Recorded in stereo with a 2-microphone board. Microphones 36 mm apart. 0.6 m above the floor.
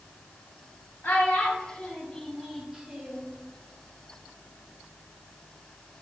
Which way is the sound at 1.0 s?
45° left (ahead or behind).